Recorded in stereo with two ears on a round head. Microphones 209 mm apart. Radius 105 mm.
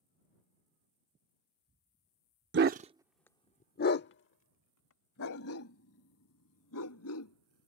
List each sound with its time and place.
2.5 s a dog barking: 50° right (ahead or behind); by 7.7 s 70° left (ahead or behind)